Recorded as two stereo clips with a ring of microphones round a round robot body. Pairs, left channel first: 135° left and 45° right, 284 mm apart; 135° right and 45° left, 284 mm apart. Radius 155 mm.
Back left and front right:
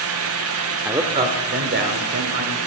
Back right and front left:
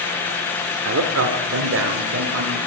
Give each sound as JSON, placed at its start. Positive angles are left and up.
{"t": 0.8, "sound": "a man speaking", "azimuth_deg": 40, "distance_m": 1.1}